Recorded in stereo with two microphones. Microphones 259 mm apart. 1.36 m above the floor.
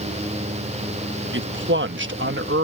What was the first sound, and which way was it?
A man speaking, 50° right (ahead or behind).